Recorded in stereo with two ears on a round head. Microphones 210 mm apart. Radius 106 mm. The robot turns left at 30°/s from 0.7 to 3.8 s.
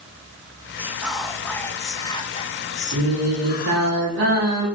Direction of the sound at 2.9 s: 55° right (ahead or behind).